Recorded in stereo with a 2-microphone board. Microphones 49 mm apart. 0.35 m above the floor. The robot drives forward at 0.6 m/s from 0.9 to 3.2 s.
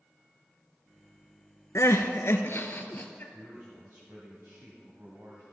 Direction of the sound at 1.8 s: 75° left (ahead or behind).